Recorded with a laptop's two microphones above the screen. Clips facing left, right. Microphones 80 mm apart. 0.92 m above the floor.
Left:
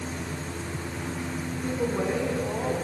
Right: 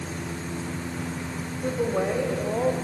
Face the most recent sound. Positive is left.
turn(degrees=-70)  # may be behind; listen again after turning